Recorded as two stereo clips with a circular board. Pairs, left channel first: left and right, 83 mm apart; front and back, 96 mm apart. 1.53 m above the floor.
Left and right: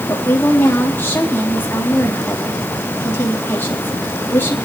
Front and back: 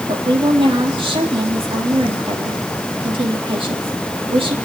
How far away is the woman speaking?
About 3.5 m.